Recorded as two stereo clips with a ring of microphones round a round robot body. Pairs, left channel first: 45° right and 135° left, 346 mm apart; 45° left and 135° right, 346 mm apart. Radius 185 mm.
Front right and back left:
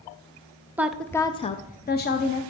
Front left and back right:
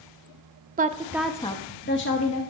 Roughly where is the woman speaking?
Behind right.